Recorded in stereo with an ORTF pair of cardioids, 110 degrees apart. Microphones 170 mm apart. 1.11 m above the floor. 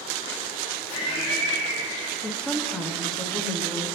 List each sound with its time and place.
0.9 s laughter: 50° left, 2.5 m
2.2 s a woman speaking: 5° left, 1.3 m